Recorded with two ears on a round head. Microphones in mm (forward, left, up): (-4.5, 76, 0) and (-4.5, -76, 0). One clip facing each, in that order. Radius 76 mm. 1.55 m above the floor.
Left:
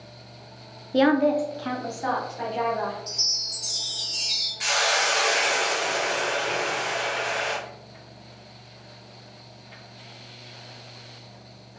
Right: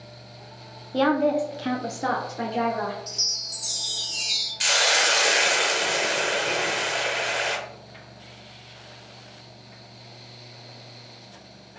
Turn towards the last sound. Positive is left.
turn(degrees=-40)  # may be behind; listen again after turning